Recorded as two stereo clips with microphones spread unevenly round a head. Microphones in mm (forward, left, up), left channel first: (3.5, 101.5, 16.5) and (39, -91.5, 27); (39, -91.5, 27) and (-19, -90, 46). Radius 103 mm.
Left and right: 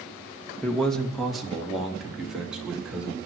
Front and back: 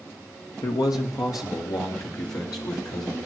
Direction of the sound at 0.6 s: 15° left.